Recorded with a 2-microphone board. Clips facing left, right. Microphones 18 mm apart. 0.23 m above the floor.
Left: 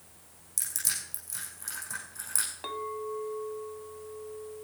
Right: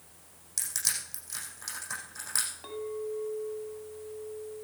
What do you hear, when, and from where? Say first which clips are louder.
0.6 s crushing: right 1 dB; 40° right (ahead or behind), 7.5 m
2.6 s a clink: left 1 dB; 30° left (ahead or behind), 1.1 m